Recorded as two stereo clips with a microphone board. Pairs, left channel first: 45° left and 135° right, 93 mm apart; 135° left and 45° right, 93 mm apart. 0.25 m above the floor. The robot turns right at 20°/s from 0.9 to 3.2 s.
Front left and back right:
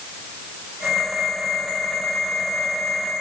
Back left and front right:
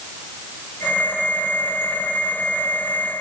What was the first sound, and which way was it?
Only background noise.